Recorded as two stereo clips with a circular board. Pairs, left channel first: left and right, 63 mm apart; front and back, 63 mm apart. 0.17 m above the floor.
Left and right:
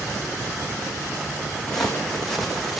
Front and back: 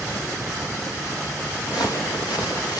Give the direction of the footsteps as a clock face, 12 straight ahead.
12 o'clock.